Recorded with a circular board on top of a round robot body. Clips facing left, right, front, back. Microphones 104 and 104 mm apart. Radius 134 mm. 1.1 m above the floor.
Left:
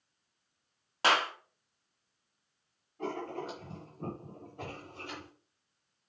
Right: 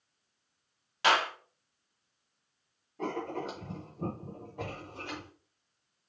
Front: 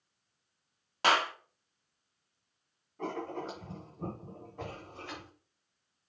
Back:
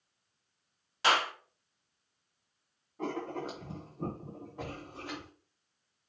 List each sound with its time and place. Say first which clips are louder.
1.0 s a clap: right 1 dB, front 1 dB; 40° left, 1.7 m
3.0 s writing: right 2 dB, back 1 dB; 100° right, 0.9 m